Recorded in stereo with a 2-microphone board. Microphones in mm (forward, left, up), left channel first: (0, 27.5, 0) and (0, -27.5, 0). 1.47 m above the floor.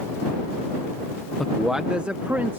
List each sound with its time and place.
1.4 s a man speaking: 10° left (ahead or behind); by 2.6 s 40° right (ahead or behind)